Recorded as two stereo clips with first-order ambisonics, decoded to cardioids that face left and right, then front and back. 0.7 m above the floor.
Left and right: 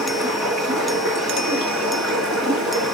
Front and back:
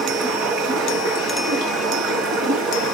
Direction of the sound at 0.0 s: 155° left.